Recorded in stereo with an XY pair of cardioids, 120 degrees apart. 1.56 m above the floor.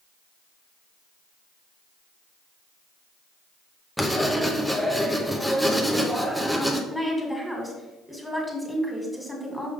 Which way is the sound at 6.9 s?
5° right.